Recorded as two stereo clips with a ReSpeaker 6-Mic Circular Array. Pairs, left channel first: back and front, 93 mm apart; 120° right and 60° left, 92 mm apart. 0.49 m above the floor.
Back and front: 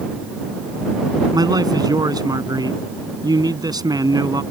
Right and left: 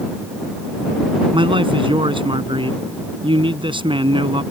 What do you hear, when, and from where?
1.3 s a man speaking: 45° left